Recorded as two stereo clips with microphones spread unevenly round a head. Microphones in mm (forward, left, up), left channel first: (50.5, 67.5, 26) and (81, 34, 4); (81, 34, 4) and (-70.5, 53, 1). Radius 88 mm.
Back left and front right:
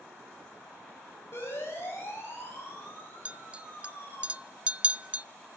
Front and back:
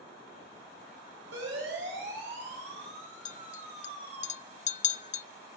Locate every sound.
1.3 s a siren: 165° right, 9 m; by 4.2 s 155° right, 8 m
3.2 s a clink: 30° left, 0.5 m